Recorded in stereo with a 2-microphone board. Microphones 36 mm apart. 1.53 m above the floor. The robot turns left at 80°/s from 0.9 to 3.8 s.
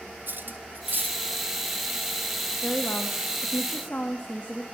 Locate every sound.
0.3 s cutlery clinking: 65° right (ahead or behind), 1.4 m; by 1.2 s 60° right (ahead or behind), 1.4 m
2.6 s a woman speaking: 135° left, 2.0 m; by 4.6 s 45° left, 2.0 m